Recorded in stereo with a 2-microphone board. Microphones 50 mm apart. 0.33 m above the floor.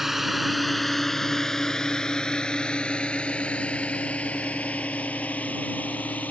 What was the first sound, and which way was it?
A drone, 5° right (ahead or behind).